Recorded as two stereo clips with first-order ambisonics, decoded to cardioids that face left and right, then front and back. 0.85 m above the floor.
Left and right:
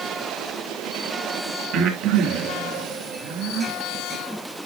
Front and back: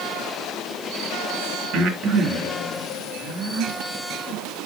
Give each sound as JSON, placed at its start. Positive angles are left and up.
{"t": 1.7, "sound": "breathing", "azimuth_deg": -125, "distance_m": 3.0}